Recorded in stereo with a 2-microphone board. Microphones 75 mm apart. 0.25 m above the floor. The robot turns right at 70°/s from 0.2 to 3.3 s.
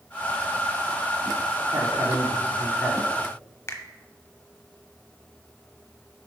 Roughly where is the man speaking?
Right.